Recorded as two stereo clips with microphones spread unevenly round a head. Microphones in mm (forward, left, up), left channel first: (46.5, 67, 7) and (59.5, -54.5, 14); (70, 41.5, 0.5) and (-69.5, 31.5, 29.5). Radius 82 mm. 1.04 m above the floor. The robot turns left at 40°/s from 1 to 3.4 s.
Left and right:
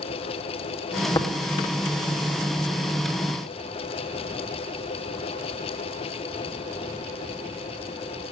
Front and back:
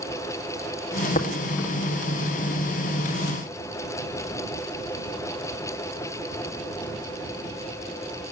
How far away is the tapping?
About 2 m.